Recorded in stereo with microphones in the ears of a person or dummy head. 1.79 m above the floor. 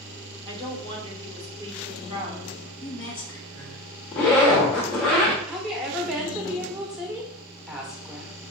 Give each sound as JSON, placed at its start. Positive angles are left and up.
{"t": 0.5, "sound": "a woman speaking", "side_deg": -30, "distance_m": 1.7}
{"t": 2.8, "sound": "a woman speaking", "side_deg": 15, "distance_m": 0.8}
{"t": 4.1, "sound": "a zipper", "side_deg": 0, "distance_m": 1.1}
{"t": 5.5, "sound": "a woman speaking", "side_deg": -5, "distance_m": 1.0}